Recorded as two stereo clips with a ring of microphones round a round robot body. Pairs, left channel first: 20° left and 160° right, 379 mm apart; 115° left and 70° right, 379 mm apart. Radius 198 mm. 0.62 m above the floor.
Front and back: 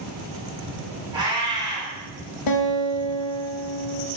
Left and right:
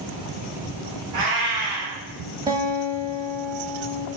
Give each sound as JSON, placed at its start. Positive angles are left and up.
{"t": 1.1, "sound": "a cat meowing", "azimuth_deg": -80, "distance_m": 1.9}
{"t": 2.5, "sound": "a guitar", "azimuth_deg": 10, "distance_m": 0.6}